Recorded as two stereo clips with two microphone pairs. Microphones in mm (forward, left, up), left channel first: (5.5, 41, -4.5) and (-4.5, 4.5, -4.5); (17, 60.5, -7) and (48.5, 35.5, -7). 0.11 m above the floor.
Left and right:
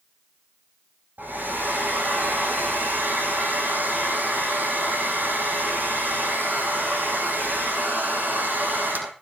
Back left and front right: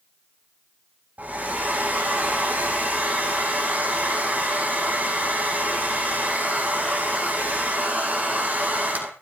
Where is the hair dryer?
80° right, 4.5 m.